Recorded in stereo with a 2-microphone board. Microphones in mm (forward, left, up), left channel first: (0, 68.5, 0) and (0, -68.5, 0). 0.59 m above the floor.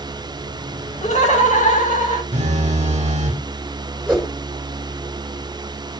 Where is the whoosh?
5° right (ahead or behind), 1.7 m.